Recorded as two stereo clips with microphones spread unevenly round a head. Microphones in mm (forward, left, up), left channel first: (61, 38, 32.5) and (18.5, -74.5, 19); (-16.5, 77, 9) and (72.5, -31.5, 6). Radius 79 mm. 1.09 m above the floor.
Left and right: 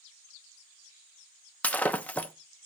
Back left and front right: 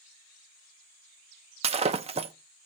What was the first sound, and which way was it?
Breaking glass, 5° right.